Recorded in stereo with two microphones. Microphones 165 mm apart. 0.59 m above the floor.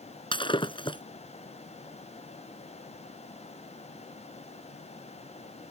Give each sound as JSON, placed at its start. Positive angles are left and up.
{"t": 0.3, "sound": "breaking glass", "side_deg": 30}